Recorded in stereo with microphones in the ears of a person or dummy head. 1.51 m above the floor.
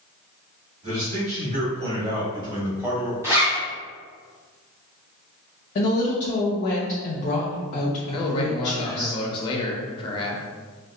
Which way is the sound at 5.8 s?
45° left (ahead or behind).